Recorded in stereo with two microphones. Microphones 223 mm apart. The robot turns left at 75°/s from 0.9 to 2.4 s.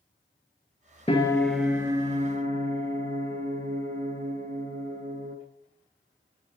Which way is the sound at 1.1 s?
35° left.